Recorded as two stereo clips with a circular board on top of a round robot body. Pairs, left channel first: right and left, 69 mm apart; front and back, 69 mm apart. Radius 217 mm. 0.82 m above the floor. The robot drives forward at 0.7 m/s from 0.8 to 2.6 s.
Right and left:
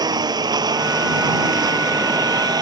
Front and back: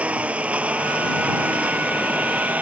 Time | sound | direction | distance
0.0 | a lawn mower | 110° left | ?